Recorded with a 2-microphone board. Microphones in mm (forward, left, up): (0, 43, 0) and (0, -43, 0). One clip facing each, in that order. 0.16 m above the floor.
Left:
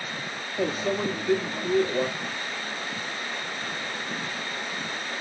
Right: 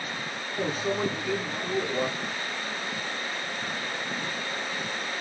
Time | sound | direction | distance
0.6 | a microwave | 10° right (ahead or behind) | 1.4 m